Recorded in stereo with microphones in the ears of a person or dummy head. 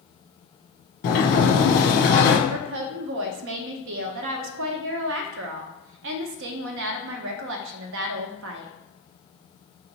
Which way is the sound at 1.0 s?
45° left (ahead or behind).